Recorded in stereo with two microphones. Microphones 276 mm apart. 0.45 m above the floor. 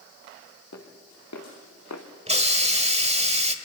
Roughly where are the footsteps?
Left.